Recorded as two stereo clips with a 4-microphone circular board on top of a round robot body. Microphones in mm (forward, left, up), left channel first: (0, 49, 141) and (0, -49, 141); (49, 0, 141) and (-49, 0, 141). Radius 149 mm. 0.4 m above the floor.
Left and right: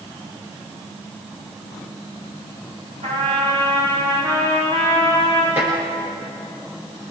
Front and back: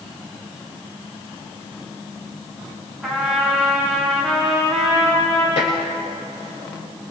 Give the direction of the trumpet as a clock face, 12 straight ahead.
3 o'clock.